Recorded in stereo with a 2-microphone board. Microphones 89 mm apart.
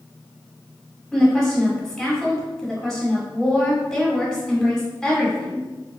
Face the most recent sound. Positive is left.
turn(degrees=10)  # may be behind; listen again after turning